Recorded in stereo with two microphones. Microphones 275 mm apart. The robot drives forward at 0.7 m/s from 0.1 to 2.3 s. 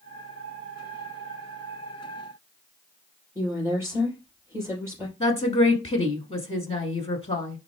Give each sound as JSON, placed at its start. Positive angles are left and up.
{"t": 3.4, "sound": "a woman speaking", "side_deg": -10, "distance_m": 3.5}
{"t": 5.2, "sound": "a woman speaking", "side_deg": 20, "distance_m": 1.1}